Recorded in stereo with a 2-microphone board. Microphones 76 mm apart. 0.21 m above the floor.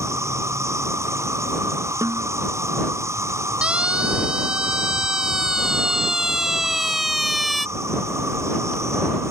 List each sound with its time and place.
0.0 s an insect: 40° right (ahead or behind)
2.0 s a snare drum: 45° right (ahead or behind)
3.6 s a siren: 15° right (ahead or behind); by 7.7 s centre (ahead or behind)